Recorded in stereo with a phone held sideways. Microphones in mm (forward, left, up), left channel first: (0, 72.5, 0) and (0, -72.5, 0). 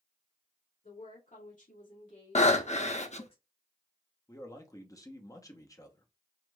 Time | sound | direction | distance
0.8 | a woman speaking | 70° left (ahead or behind) | 2.5 m
2.4 | breathing | 50° left (ahead or behind) | 0.6 m
4.3 | a man speaking | 25° left (ahead or behind) | 1.0 m